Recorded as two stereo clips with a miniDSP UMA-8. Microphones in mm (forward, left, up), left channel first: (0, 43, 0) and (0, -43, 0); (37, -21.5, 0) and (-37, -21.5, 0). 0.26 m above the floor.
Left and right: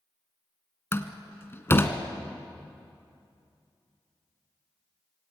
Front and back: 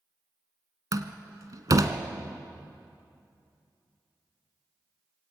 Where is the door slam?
150° left, 1.7 m.